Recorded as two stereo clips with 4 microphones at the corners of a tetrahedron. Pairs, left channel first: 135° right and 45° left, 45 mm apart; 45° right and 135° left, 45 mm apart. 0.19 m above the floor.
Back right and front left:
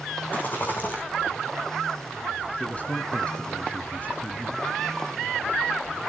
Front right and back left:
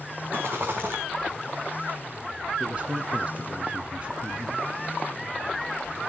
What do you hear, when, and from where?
0.3 s a rattle: 175° left, 3.5 m
2.6 s a man speaking: straight behind, 1.8 m